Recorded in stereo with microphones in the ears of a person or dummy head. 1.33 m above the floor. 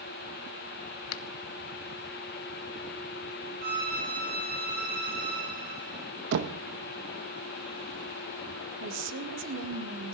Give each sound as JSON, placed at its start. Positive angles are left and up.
{"t": 1.1, "sound": "a finger snap", "side_deg": 80, "distance_m": 0.6}
{"t": 3.6, "sound": "a violin", "side_deg": -50, "distance_m": 3.5}
{"t": 6.3, "sound": "knocking", "side_deg": -60, "distance_m": 0.9}
{"t": 8.8, "sound": "a woman speaking", "side_deg": -65, "distance_m": 1.9}